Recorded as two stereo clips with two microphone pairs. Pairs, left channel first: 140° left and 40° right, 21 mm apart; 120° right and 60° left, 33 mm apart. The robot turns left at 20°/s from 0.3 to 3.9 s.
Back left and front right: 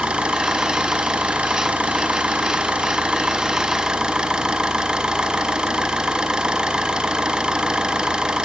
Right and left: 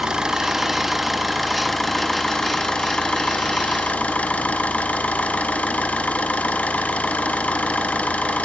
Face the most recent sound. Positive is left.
turn(degrees=-80)